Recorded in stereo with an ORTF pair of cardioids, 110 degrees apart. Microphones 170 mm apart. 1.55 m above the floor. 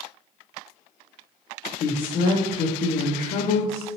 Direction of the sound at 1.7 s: 60° left.